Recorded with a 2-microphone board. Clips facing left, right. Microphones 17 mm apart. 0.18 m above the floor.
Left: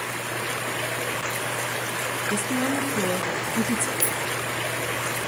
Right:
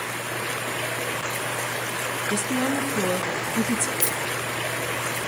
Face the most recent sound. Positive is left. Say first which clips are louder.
# even
turn(degrees=-50)  # may be behind; listen again after turning